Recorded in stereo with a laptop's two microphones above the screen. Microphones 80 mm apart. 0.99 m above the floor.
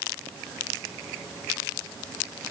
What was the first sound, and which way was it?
Only background noise.